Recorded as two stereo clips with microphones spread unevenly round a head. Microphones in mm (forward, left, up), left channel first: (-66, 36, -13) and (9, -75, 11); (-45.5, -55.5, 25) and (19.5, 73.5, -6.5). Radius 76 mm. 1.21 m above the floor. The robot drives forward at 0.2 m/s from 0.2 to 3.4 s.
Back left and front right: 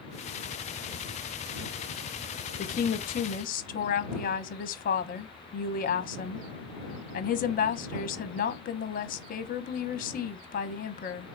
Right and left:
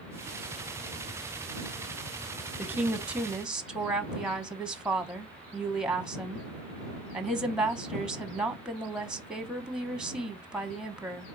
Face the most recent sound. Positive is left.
turn(degrees=145)